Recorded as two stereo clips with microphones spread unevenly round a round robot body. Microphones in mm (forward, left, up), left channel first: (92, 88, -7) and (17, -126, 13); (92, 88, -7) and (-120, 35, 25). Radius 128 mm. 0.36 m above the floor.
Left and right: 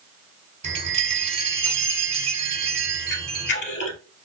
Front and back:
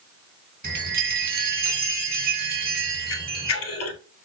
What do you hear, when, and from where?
0.6 s a chime: 155° right, 1.4 m
3.1 s a camera shutter: 30° left, 1.5 m